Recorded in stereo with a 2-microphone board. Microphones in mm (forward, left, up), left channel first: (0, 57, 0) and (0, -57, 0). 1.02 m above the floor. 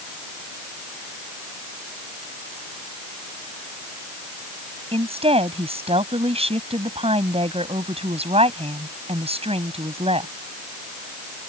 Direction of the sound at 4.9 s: 60° right (ahead or behind).